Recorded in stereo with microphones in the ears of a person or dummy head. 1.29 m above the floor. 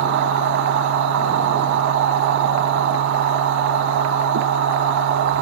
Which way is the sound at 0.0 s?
70° right (ahead or behind).